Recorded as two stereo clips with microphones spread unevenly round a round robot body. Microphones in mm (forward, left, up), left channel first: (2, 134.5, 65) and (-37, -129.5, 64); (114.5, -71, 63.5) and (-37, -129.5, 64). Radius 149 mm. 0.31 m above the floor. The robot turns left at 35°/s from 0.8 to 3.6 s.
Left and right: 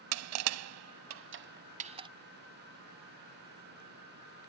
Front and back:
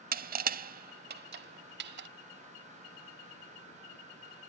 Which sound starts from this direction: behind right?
Crushing, at 0.1 s.